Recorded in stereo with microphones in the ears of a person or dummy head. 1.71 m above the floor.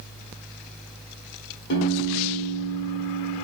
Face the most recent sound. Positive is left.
turn(degrees=60)  # may be behind; listen again after turning